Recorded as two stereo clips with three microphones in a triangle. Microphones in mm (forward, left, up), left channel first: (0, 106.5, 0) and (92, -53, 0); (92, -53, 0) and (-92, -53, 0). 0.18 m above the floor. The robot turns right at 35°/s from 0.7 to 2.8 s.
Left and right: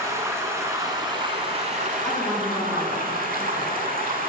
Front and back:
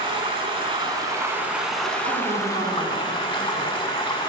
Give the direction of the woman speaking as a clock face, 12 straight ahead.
5 o'clock.